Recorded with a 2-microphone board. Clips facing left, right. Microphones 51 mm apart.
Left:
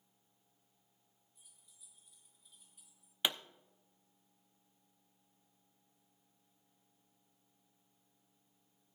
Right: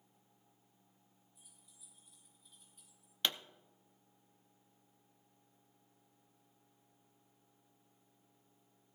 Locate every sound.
1.4 s keys jangling: 5° right (ahead or behind), 7 m; by 3.1 s 10° left (ahead or behind), 4.5 m
3.2 s a pop: 10° left (ahead or behind), 0.5 m